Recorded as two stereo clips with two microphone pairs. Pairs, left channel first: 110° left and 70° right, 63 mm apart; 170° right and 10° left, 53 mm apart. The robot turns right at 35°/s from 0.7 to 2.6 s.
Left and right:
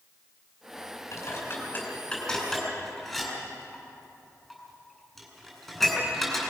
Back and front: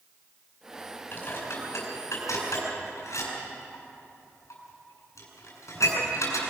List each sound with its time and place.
1.1 s dishes clattering: 145° left, 4.5 m; by 6.5 s 160° right, 4.5 m